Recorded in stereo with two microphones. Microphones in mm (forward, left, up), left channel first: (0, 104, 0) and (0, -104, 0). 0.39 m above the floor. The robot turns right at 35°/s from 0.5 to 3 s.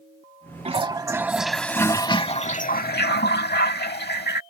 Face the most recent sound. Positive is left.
turn(degrees=55)